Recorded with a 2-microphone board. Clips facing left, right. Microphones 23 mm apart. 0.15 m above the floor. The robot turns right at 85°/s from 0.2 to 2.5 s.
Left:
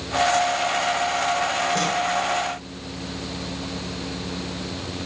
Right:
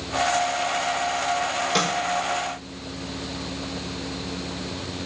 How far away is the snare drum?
About 7 m.